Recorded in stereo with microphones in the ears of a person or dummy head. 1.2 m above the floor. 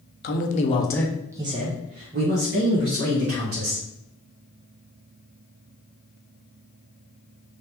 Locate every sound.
0.2 s a man speaking: 50° left (ahead or behind), 0.7 m; by 3.9 s 65° right (ahead or behind), 1.7 m